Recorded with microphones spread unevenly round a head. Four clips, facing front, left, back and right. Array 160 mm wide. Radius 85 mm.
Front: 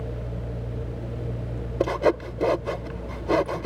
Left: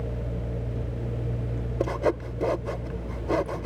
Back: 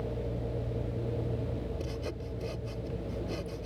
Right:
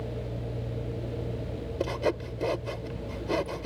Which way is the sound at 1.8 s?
5° left.